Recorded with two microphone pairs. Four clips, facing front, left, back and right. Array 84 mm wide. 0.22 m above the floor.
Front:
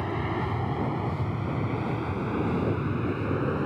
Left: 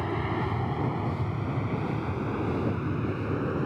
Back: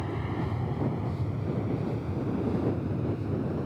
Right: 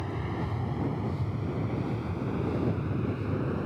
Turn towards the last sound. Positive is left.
turn(degrees=20)